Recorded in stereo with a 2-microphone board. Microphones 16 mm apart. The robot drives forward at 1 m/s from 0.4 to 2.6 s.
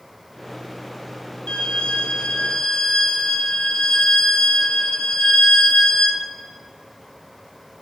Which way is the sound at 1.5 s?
75° left (ahead or behind).